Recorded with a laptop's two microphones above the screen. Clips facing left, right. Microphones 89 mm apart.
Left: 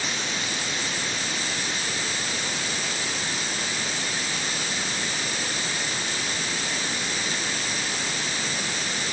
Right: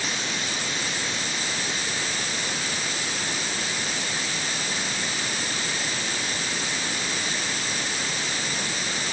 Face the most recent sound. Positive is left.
No sound to turn to.